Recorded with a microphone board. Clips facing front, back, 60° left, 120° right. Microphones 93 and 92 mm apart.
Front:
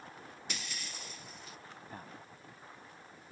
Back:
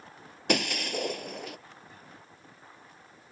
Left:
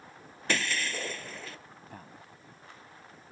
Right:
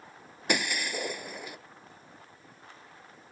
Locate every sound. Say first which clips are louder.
0.5 s breaking glass: back 19 dB, right 1 dB; 165° left
1.9 s a man speaking: front 3 dB, left 4 dB; 40° left